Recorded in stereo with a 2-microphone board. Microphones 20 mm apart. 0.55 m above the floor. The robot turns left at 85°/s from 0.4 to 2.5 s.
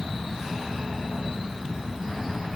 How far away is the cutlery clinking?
No cutlery clinking in this recording.